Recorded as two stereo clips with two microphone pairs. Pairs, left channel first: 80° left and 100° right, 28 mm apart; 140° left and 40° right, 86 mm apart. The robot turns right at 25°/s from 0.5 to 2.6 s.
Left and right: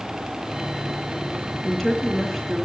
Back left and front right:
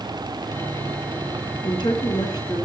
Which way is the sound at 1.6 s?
160° left.